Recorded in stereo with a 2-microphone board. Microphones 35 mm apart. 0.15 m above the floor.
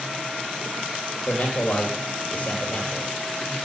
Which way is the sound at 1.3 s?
50° left (ahead or behind).